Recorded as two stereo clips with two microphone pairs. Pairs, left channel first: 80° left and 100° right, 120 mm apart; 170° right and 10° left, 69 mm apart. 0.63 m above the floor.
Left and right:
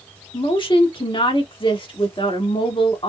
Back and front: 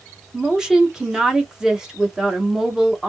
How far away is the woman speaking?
About 1.0 m.